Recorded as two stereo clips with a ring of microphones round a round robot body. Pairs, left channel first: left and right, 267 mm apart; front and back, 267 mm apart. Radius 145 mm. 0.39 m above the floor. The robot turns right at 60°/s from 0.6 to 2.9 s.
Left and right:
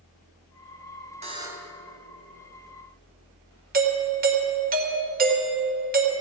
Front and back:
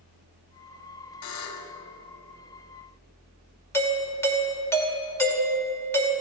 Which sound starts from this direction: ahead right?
A buzzer, at 1.2 s.